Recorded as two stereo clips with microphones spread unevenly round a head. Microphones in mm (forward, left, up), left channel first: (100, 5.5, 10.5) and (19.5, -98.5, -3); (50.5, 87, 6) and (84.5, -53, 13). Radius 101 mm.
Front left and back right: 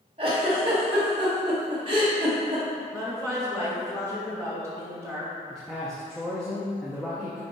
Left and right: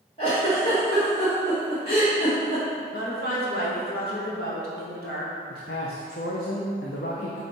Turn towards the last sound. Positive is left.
turn(degrees=140)